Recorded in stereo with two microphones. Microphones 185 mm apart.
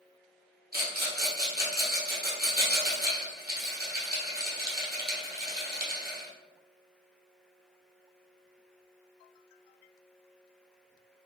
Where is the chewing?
No chewing in this recording.